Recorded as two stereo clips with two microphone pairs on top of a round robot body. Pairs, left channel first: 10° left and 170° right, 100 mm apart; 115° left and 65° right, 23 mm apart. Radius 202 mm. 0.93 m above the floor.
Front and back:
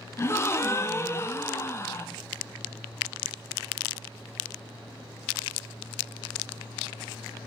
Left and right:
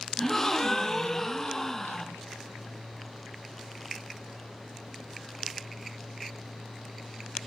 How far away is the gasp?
About 0.7 m.